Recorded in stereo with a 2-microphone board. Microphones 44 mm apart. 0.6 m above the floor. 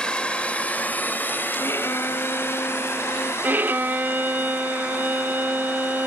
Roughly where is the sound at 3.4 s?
Right.